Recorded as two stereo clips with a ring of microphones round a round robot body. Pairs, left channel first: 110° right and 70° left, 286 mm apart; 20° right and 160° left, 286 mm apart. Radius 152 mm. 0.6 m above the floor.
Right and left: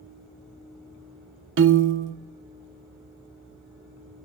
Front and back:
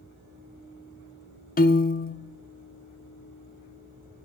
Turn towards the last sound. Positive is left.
turn(degrees=30)